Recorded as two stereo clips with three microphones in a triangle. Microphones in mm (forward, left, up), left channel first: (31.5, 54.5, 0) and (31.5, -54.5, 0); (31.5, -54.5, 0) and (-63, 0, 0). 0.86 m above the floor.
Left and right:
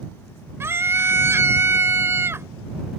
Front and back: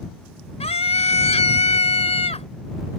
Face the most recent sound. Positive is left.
turn(degrees=-25)